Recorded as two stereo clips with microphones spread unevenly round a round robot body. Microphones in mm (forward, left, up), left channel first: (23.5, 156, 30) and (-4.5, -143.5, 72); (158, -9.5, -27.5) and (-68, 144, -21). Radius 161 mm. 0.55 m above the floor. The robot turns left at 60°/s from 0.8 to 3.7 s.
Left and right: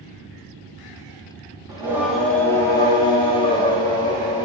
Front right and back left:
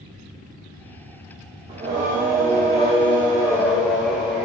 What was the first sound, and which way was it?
Singing, 175° right.